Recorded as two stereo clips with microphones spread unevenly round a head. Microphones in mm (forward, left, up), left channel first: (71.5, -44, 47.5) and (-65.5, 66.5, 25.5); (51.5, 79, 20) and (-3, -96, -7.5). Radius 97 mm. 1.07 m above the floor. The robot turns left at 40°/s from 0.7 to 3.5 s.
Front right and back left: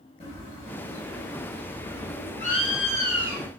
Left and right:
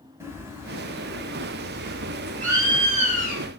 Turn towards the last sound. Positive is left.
turn(degrees=-140)